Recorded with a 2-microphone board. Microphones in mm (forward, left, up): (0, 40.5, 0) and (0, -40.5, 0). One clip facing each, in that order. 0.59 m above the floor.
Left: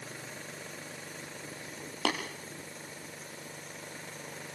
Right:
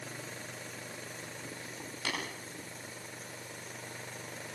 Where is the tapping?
70° left (ahead or behind), 5 m.